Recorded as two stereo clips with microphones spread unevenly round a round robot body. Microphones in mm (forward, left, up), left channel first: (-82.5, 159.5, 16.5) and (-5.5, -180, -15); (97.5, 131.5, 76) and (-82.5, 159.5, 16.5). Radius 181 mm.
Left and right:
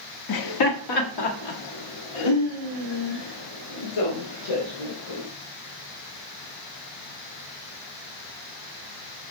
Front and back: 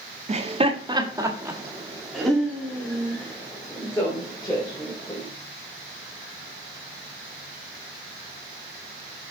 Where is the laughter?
135° left, 1.5 m; by 5.3 s 60° left, 3.5 m.